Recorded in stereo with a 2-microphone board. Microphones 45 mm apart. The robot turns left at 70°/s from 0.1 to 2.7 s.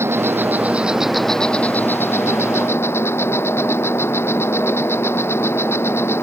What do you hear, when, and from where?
0.0 s an insect: 105° right; by 6.2 s 70° left